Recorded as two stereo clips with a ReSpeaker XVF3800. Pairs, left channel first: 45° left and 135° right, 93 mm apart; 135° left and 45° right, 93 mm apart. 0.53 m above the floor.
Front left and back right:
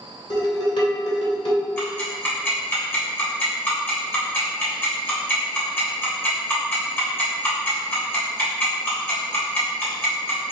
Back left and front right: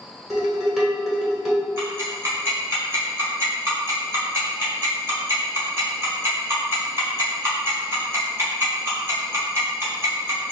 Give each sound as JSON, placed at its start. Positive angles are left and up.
{"t": 0.3, "sound": "dishes clattering", "azimuth_deg": 45, "distance_m": 1.3}
{"t": 1.8, "sound": "ticking", "azimuth_deg": -10, "distance_m": 1.5}